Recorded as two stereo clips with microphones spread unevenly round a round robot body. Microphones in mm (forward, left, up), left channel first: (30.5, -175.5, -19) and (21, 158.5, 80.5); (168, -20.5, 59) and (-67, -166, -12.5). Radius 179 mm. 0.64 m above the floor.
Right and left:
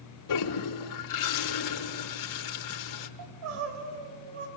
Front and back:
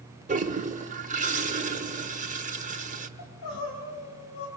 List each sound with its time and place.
0.3 s a toilet flushing: 90° right, 1.7 m
3.2 s crying: 70° left, 3.5 m